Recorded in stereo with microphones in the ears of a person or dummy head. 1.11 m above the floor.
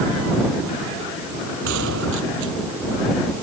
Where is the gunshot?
70° right (ahead or behind).